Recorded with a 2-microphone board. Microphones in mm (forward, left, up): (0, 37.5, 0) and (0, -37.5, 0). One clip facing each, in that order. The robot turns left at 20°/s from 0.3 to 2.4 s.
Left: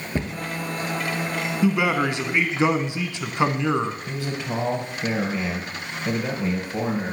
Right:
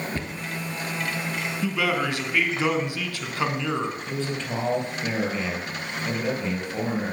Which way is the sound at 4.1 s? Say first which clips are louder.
Even; 10° left (ahead or behind).